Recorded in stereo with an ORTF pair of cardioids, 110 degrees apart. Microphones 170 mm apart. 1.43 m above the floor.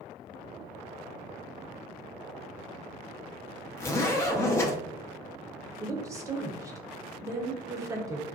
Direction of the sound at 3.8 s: 15° left.